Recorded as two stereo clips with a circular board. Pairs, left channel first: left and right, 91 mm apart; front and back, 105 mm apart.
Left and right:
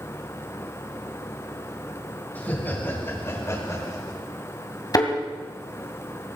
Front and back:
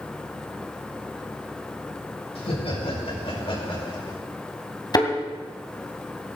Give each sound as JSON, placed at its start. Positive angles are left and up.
{"t": 2.4, "sound": "laughter", "azimuth_deg": 20, "distance_m": 6.0}
{"t": 4.9, "sound": "a thud", "azimuth_deg": 45, "distance_m": 2.5}